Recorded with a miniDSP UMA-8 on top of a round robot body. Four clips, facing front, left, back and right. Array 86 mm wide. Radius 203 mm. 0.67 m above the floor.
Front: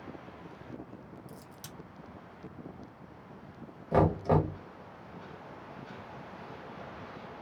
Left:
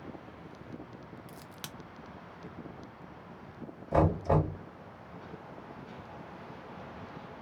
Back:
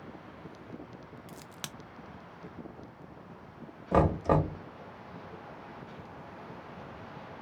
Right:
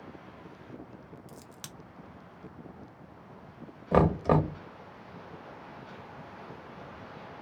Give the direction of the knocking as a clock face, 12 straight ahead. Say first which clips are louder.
Right 3 dB, even; 3 o'clock.